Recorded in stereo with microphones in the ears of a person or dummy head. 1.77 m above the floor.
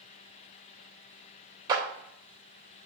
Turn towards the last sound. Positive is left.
turn(degrees=-20)  # may be behind; listen again after turning